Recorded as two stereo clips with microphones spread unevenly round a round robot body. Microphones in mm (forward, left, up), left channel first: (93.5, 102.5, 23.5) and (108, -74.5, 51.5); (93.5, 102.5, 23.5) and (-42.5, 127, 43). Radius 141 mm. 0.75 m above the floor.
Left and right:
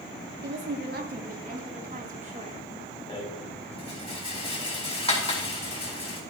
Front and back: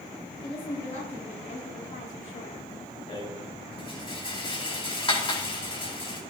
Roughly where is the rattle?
Ahead left.